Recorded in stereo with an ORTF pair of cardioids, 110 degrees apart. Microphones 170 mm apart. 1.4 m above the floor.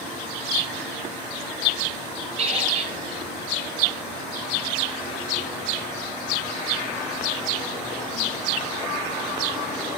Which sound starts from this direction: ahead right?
A squeak, at 2.4 s.